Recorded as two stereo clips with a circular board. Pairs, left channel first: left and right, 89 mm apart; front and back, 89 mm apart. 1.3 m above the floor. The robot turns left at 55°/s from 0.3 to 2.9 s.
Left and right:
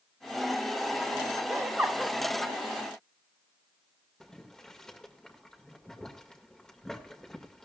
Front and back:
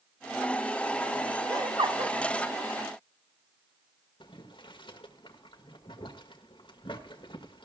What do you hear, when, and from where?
1.5 s laughter: 140° right, 1.5 m; by 2.2 s straight behind, 1.5 m
4.2 s boiling: 5° left, 1.7 m